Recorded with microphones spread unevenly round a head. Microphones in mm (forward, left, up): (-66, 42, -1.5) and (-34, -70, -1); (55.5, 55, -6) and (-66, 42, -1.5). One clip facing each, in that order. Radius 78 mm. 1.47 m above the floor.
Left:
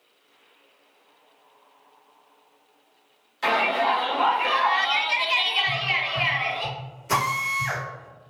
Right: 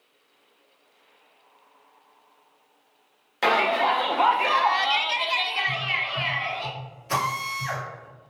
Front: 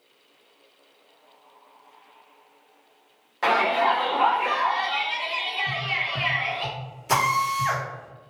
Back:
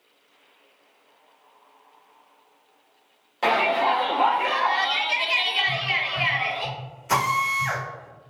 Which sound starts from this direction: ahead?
Tapping, at 5.7 s.